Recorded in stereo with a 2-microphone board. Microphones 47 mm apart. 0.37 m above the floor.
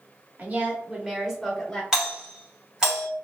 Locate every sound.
0.4 s a woman speaking: 35° right (ahead or behind), 0.9 m; by 1.8 s 15° left (ahead or behind), 0.9 m
1.9 s a doorbell: 15° right (ahead or behind), 1.3 m